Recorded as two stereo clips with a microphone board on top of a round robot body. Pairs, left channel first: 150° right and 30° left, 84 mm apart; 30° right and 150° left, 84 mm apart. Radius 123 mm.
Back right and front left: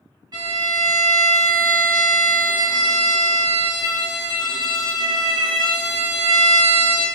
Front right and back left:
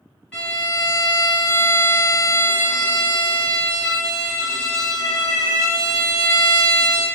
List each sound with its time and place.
0.3 s a violin: 50° left, 2.5 m